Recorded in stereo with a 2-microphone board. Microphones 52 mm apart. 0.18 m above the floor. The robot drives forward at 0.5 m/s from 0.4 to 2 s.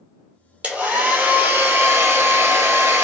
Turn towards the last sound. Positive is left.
turn(degrees=-60)  # may be behind; listen again after turning